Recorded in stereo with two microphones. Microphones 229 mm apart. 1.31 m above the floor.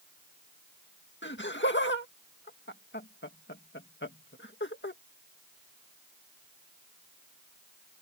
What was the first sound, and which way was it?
Laughter, 50° left (ahead or behind).